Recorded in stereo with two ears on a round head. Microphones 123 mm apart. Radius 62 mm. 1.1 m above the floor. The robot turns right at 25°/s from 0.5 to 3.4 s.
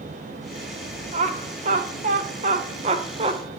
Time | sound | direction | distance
1.1 | laughter | 50° right (ahead or behind) | 0.8 m